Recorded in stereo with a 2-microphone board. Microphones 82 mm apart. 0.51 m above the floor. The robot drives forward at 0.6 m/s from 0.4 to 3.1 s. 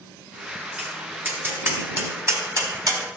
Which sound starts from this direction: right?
Tapping, at 0.8 s.